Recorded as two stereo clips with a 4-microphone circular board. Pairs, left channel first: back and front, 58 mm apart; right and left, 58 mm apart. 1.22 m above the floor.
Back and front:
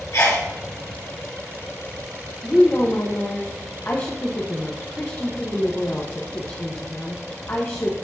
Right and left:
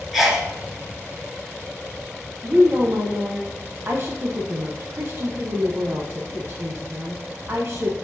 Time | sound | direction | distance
0.1 | a sneeze | 175° left | 2.5 m
2.4 | a woman speaking | 135° left | 0.9 m